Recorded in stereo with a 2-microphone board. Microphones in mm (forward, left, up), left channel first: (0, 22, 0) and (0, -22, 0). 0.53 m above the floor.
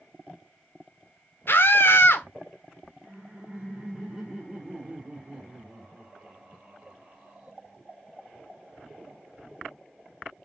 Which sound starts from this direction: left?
A scream, at 1.5 s.